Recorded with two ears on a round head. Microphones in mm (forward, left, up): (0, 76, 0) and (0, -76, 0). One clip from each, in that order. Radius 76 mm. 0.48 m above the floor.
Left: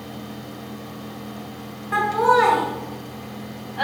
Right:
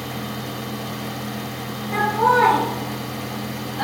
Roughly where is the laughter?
Left.